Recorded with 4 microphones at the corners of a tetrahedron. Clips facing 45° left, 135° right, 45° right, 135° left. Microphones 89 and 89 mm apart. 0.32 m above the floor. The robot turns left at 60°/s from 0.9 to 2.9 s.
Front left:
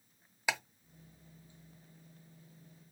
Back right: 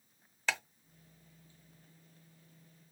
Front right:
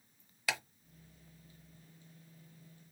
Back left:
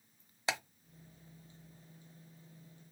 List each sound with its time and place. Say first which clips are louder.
0.5 s ticking: front left 1 dB, back left 1 dB; 115° left, 0.8 m